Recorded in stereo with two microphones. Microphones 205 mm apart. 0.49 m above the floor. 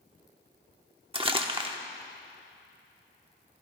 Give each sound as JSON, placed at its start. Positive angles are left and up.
{"t": 1.1, "sound": "crumpling", "side_deg": -25, "distance_m": 0.9}